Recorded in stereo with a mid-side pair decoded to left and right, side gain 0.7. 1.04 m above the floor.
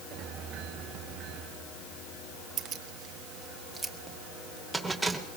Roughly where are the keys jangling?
Ahead right.